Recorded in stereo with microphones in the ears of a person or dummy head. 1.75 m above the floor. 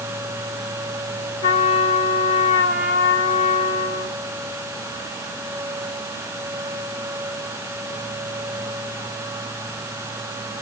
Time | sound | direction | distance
1.4 | a trumpet | 35° left (ahead or behind) | 2.0 m